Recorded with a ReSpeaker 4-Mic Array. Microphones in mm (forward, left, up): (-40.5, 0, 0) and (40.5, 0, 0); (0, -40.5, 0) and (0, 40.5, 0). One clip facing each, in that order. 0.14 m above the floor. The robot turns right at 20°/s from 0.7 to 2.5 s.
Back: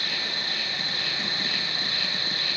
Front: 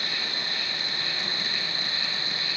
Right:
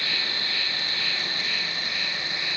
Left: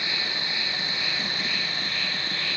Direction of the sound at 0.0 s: 160° left.